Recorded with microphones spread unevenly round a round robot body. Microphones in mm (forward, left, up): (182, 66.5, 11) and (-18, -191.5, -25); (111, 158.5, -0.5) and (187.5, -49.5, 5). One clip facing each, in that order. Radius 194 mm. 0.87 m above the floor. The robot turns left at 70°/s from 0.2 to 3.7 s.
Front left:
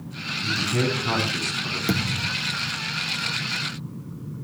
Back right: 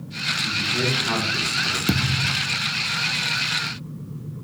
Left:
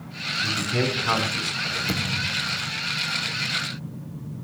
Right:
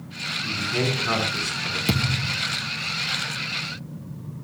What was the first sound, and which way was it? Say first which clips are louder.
A man speaking: front left 2 dB, left 1 dB; 50° left.